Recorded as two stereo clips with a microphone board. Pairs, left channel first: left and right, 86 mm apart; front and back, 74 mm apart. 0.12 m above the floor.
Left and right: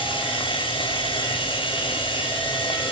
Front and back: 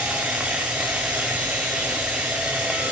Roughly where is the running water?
Left.